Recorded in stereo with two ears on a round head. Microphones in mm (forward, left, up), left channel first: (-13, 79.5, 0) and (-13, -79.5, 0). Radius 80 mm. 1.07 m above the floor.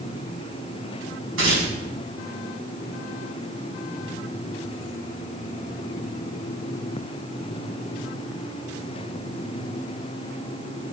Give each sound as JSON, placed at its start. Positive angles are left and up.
{"t": 1.4, "sound": "tearing paper", "side_deg": -90, "distance_m": 7.5}